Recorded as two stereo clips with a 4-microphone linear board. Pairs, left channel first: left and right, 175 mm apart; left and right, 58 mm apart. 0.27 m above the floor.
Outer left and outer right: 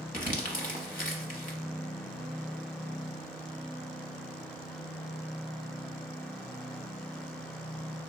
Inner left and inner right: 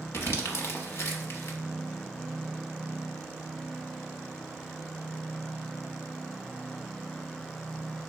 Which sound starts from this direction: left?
Crumpling, at 0.1 s.